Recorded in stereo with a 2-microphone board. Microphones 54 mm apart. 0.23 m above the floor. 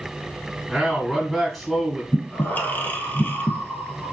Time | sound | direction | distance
0.7 | a man speaking | centre (ahead or behind) | 1.4 m
2.1 | breathing | 35° left (ahead or behind) | 1.3 m